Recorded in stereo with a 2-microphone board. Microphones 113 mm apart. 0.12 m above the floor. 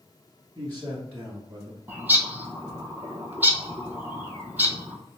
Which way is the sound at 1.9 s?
15° right (ahead or behind).